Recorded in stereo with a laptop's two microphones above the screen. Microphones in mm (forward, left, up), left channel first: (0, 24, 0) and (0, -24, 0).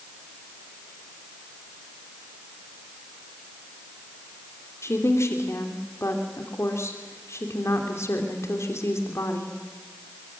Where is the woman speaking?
65° left (ahead or behind), 3 m.